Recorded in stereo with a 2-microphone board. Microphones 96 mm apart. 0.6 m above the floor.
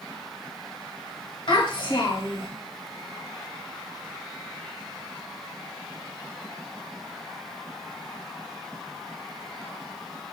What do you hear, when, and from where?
1.5 s a child speaking: 65° left (ahead or behind), 2.0 m